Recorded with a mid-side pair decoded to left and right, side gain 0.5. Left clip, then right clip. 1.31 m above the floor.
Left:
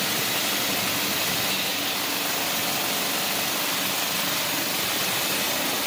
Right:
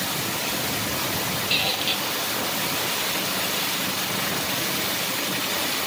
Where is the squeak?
55° right, 2.5 m.